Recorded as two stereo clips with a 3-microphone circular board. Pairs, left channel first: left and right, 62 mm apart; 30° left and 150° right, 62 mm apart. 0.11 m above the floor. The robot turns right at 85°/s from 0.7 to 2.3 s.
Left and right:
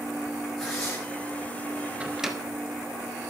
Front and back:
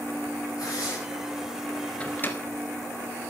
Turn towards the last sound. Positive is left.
turn(degrees=-5)